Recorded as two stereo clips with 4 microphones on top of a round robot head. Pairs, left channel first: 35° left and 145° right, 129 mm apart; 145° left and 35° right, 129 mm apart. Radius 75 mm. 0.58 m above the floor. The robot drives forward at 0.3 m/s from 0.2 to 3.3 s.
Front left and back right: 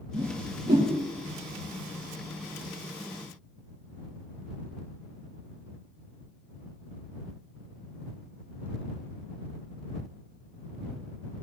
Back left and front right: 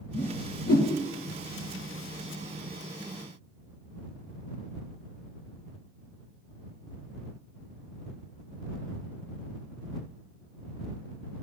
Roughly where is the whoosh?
Behind left.